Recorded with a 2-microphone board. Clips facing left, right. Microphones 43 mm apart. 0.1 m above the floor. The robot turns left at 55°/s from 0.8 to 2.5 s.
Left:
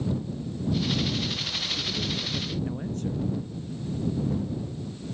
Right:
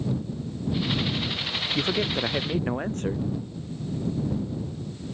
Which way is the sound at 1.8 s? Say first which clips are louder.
Right 5 dB; 90° right.